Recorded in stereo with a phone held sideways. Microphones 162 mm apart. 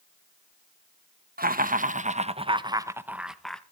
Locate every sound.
1.4 s laughter: 65° right (ahead or behind), 1.2 m; by 3.6 s 5° left (ahead or behind), 1.1 m